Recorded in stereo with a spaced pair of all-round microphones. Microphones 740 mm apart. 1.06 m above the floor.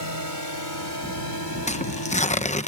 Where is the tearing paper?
10° left (ahead or behind).